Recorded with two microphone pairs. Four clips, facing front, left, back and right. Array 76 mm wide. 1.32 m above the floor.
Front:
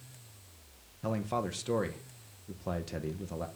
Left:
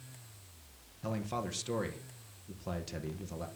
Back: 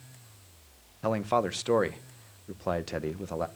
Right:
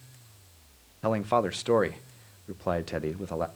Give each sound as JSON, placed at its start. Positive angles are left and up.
{"t": 1.0, "sound": "a man speaking", "azimuth_deg": -125, "distance_m": 1.3}